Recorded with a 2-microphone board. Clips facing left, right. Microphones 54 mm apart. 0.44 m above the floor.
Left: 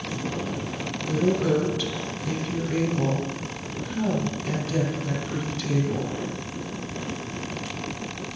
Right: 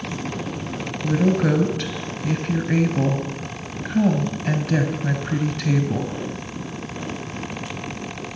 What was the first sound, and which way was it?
A woman speaking, 55° right (ahead or behind).